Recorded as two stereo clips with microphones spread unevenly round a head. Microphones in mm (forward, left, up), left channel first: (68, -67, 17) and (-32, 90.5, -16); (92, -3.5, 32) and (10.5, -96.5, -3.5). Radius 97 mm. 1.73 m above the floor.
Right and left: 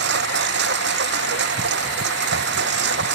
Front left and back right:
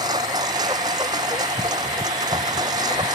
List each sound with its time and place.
0.0 s a lawn mower: 160° left